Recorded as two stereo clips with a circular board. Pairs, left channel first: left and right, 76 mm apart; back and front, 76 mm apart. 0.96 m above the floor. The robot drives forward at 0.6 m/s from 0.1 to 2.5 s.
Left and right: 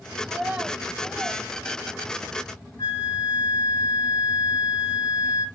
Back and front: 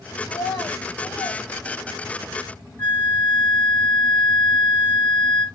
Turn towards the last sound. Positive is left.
turn(degrees=105)